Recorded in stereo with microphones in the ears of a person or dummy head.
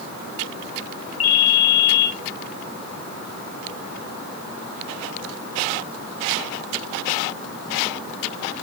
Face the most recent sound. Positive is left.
turn(degrees=45)  # may be behind; listen again after turning